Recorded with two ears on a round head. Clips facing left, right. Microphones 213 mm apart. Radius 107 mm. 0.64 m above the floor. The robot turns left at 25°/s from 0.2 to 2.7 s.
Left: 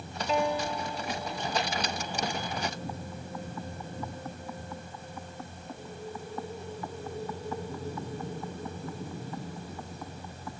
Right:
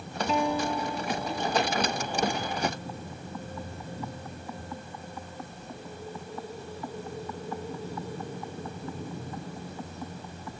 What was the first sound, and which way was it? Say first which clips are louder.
A guitar: right 1 dB; 85° right.